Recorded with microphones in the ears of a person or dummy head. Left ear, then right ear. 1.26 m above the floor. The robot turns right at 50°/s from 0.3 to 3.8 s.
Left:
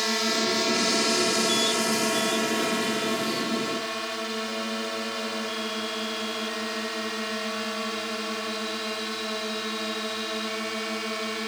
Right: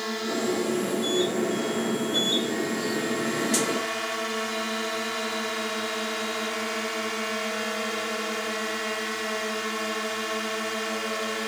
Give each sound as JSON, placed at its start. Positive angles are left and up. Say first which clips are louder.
{"t": 0.0, "sound": "a drone", "louder": "left 4 dB", "azimuth_deg": 30}